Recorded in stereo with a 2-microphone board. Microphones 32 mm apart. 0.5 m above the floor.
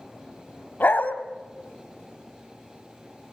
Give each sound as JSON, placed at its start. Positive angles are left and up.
{"t": 0.8, "sound": "a dog barking", "side_deg": 70, "distance_m": 1.3}